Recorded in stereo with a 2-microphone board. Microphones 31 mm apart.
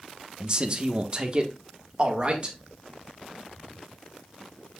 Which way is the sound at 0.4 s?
35° right (ahead or behind).